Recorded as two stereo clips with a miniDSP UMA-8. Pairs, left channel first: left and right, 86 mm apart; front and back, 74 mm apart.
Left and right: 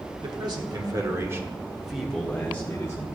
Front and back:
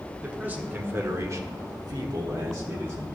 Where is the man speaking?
110° right, 1.6 m; by 3.0 s 145° left, 1.5 m.